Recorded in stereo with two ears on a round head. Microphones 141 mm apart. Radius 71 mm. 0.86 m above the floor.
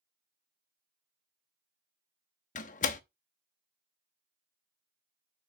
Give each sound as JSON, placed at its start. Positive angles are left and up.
{"t": 2.5, "sound": "a door slam", "side_deg": 50, "distance_m": 0.8}